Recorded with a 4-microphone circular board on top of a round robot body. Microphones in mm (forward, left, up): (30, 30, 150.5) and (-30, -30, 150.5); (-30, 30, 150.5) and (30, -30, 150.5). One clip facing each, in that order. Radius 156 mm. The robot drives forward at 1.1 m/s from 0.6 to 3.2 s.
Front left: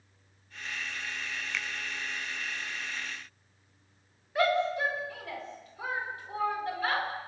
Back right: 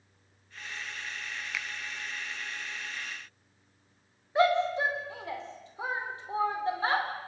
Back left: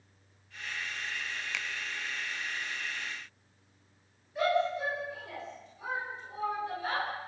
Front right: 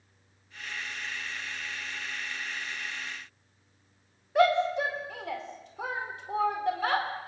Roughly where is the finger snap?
Behind left.